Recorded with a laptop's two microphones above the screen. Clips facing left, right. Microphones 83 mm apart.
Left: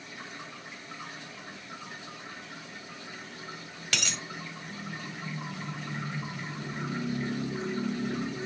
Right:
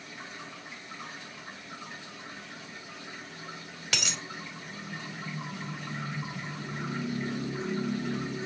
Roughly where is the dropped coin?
Centre.